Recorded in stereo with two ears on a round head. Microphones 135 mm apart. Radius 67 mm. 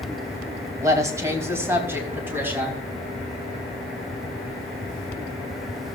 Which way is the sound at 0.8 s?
25° right (ahead or behind).